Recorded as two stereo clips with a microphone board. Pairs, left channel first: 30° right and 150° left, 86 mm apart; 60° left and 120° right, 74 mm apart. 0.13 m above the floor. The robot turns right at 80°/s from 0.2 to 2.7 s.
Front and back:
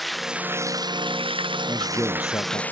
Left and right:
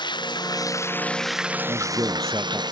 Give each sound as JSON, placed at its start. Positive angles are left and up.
{"t": 0.0, "sound": "running water", "azimuth_deg": 60}
{"t": 1.7, "sound": "a man speaking", "azimuth_deg": -120}